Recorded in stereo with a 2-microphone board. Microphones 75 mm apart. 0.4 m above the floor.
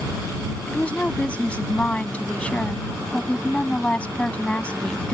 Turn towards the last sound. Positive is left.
turn(degrees=20)  # may be behind; listen again after turning